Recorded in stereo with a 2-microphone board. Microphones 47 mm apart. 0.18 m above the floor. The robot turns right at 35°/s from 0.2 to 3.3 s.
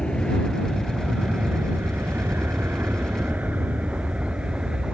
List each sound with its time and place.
0.0 s an aircraft: 15° left (ahead or behind); by 5.0 s 15° right (ahead or behind)